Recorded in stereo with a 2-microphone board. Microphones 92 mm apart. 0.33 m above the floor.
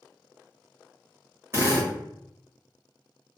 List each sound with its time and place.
1.5 s a drill: 30° right (ahead or behind), 1.5 m